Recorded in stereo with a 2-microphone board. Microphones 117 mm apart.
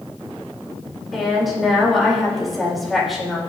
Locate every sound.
1.1 s a woman speaking: centre (ahead or behind), 4 m